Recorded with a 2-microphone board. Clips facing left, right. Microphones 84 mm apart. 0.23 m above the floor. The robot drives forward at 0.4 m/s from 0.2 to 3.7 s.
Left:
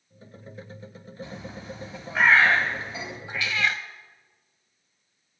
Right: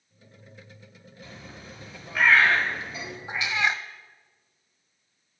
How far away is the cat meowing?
About 0.7 m.